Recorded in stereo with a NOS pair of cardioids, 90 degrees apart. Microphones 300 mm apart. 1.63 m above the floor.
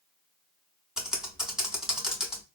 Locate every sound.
1.0 s typing on a keyboard: straight ahead, 1.2 m